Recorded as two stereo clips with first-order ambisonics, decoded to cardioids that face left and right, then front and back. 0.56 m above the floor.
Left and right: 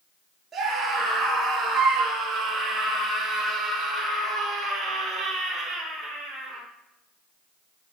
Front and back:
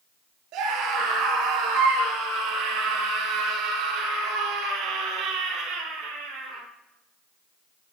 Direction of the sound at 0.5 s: 165° right.